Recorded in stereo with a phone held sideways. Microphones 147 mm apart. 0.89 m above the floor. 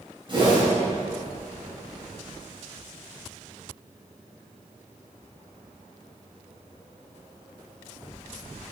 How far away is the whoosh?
About 3 m.